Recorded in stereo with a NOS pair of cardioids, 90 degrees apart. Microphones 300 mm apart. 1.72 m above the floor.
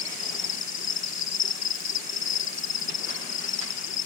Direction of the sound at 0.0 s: 65° left.